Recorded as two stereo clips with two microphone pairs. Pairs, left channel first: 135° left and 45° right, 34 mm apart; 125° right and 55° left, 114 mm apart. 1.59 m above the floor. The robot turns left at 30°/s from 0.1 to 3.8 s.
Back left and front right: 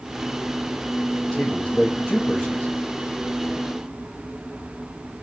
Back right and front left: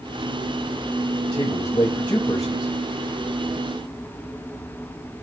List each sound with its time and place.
1.3 s a man speaking: 150° right, 1.0 m; by 2.7 s 165° left, 1.0 m